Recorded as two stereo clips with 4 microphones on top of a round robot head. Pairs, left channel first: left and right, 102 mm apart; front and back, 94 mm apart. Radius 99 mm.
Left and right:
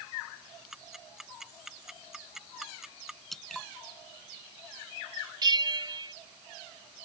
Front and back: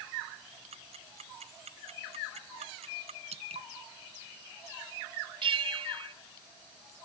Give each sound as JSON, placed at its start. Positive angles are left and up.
{"t": 0.7, "sound": "ticking", "azimuth_deg": -175}
{"t": 3.3, "sound": "dripping", "azimuth_deg": 180}
{"t": 5.4, "sound": "a bell", "azimuth_deg": -140}